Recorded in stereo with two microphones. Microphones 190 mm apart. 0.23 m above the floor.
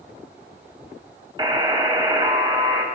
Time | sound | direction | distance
1.4 | a buzzer | 25° right (ahead or behind) | 0.7 m